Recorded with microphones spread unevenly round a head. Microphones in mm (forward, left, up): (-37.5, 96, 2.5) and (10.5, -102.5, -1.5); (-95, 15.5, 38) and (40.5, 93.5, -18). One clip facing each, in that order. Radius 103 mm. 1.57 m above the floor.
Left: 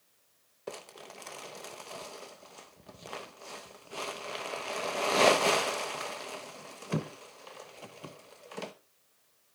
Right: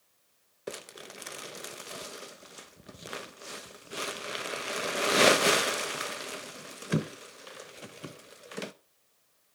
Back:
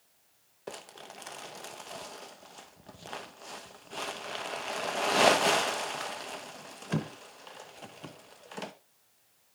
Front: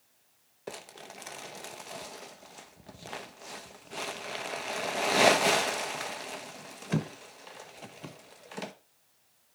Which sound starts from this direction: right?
Crumpling, at 0.7 s.